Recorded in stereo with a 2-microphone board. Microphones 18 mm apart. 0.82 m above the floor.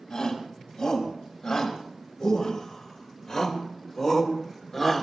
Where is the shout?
55° left (ahead or behind), 6 m; by 5.0 s 20° left (ahead or behind), 2.5 m.